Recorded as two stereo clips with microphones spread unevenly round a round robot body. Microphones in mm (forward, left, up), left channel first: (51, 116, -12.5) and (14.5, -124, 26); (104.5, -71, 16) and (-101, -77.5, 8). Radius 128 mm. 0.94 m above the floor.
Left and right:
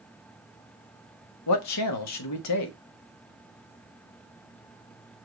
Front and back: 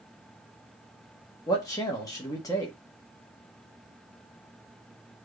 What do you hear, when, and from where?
1.5 s a man speaking: 80° left, 1.1 m